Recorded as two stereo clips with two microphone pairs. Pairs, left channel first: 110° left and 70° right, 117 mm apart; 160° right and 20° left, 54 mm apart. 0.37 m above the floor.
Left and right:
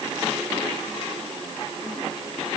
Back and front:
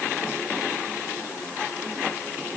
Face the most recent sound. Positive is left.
No sound to turn to.